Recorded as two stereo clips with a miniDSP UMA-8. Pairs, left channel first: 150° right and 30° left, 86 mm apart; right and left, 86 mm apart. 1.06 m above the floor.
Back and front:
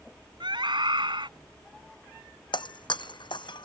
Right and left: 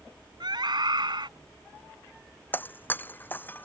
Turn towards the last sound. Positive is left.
turn(degrees=-155)